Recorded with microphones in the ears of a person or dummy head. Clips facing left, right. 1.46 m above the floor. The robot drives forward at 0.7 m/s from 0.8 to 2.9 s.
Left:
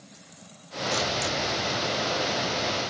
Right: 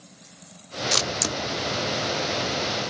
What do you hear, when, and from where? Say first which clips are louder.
0.9 s a camera shutter: left 1 dB; 80° right, 0.6 m; by 2.9 s 25° right (ahead or behind), 1.4 m